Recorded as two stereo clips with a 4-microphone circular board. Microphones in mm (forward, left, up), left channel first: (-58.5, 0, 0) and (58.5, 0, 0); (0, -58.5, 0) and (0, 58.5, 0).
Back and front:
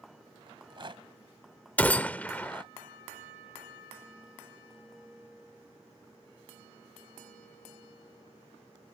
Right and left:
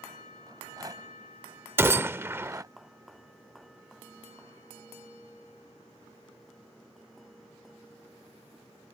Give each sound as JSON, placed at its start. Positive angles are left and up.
{"t": 0.5, "sound": "a rattle", "azimuth_deg": 35}
{"t": 1.8, "sound": "a gunshot", "azimuth_deg": 125}